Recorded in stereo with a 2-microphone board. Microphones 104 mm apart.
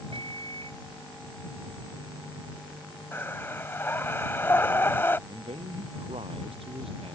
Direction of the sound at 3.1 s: 25° left (ahead or behind).